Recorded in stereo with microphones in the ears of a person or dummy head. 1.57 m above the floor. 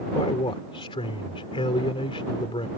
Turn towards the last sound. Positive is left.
turn(degrees=25)  # may be behind; listen again after turning